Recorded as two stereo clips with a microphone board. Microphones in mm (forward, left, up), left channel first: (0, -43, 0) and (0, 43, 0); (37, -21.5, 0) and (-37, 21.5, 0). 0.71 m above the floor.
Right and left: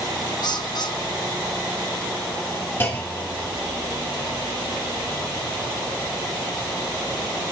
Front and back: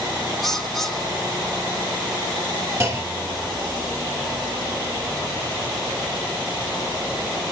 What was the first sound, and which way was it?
A bird, 120° right.